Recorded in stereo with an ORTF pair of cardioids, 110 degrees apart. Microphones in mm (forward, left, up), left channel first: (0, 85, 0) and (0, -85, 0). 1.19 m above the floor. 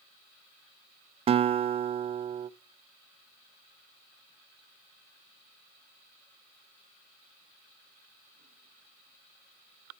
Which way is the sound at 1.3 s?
35° right.